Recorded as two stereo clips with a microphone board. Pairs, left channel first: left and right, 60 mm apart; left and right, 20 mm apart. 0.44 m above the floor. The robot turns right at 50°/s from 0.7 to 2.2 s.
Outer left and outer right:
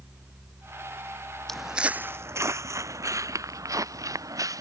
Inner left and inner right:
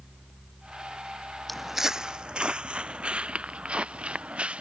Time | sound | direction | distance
1.5 | footsteps | 10° left (ahead or behind) | ?